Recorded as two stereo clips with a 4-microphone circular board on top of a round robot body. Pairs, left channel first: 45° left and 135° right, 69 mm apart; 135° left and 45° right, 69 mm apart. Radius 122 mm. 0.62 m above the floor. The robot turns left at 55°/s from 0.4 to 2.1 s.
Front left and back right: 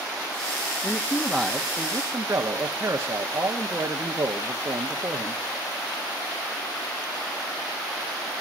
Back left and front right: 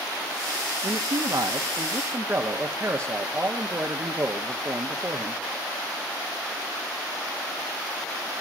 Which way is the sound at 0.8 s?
20° right.